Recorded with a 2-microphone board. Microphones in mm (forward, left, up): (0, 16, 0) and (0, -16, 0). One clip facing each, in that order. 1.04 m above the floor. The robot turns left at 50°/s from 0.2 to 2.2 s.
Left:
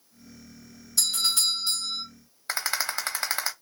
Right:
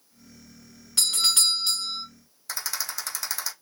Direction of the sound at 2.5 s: 35° left (ahead or behind).